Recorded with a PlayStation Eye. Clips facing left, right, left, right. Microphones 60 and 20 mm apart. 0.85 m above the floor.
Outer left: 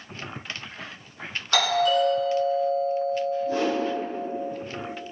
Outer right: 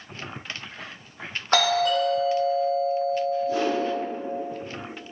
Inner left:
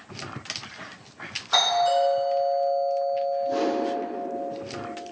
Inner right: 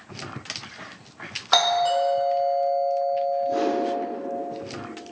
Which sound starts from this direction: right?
A doorbell, at 1.5 s.